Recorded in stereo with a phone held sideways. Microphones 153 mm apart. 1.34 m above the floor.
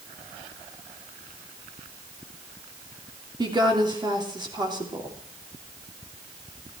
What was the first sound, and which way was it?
A woman speaking, 30° right (ahead or behind).